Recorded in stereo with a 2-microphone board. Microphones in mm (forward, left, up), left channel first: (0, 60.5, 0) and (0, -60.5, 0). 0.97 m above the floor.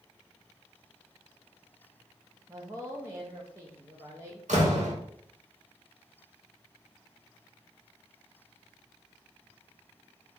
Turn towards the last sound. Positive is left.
turn(degrees=-85)